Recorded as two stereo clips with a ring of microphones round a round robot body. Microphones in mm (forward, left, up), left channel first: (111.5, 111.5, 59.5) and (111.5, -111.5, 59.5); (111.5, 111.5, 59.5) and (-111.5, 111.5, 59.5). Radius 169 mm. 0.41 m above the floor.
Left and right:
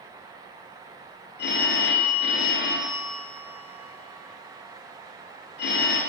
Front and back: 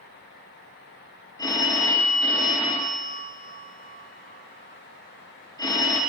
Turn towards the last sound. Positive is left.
turn(degrees=70)